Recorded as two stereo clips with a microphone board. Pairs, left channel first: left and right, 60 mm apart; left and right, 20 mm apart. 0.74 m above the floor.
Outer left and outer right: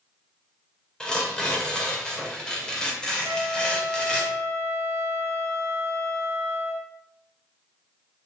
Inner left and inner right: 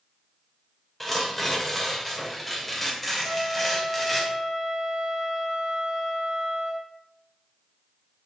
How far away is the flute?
About 1.8 m.